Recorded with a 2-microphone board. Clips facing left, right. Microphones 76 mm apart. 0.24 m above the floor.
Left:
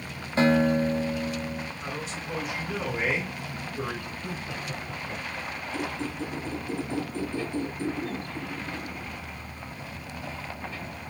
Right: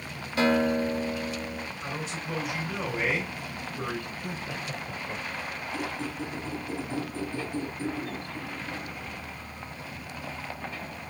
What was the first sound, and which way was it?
A guitar, 35° left (ahead or behind).